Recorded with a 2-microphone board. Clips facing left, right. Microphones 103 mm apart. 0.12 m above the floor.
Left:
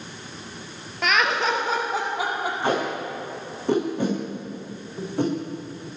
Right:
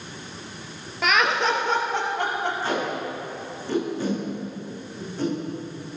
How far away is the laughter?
About 2 m.